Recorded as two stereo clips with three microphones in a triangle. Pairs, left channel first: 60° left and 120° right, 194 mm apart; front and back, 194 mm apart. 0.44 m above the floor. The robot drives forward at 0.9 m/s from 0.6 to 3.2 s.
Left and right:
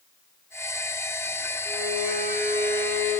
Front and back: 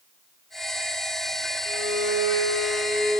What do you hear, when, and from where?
1.6 s a violin: 160° left, 5.5 m; by 3.2 s 165° left, 7 m